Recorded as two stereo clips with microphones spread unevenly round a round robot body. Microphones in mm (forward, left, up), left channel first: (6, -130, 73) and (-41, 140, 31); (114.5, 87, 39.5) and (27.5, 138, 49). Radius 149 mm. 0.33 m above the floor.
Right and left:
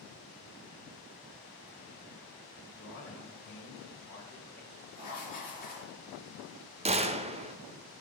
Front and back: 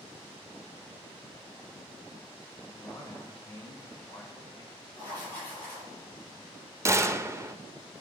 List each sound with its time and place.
2.6 s a man speaking: 130° right, 1.9 m
4.9 s writing: 140° right, 4.5 m
6.8 s a gunshot: 100° left, 0.6 m